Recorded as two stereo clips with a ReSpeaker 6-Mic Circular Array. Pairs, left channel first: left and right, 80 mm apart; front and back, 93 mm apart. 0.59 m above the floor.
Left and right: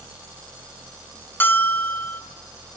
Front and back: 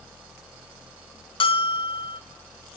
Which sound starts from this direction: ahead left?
A bell, at 1.4 s.